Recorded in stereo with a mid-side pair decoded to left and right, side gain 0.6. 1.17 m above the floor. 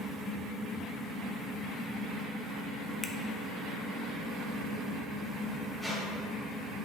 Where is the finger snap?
15° left, 0.7 m.